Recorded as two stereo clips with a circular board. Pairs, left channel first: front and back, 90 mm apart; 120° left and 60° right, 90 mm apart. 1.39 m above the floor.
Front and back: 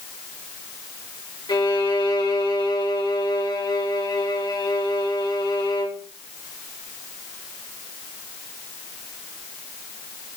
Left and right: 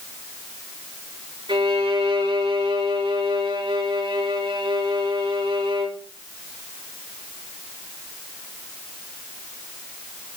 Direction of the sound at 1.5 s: 30° right.